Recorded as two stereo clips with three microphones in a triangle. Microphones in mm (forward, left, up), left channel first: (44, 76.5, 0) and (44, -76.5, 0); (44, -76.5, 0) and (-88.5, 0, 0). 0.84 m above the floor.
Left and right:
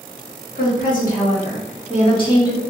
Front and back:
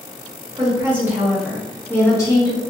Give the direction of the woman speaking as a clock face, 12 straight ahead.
9 o'clock.